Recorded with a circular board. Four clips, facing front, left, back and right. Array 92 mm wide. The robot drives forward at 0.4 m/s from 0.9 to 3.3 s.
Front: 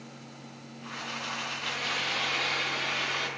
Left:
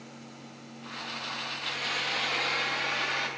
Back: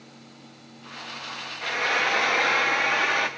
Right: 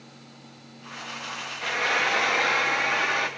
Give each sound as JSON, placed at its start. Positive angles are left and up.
{"t": 1.6, "sound": "frying", "azimuth_deg": -135, "distance_m": 0.8}